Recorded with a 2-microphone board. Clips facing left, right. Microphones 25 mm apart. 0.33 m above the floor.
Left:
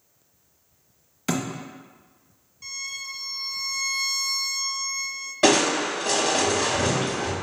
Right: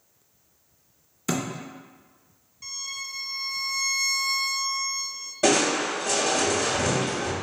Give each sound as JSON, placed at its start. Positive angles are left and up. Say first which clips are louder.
{"t": 1.3, "sound": "a thud", "louder": "left 1 dB", "side_deg": 50, "distance_m": 0.9}
{"t": 2.6, "sound": "a violin", "louder": "left 1 dB", "side_deg": 0, "distance_m": 0.8}
{"t": 5.4, "sound": "crushing", "louder": "left 2 dB", "side_deg": 65, "distance_m": 0.9}